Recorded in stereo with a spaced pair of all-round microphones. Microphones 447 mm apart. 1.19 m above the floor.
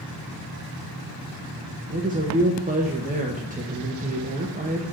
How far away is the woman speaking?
About 1.1 m.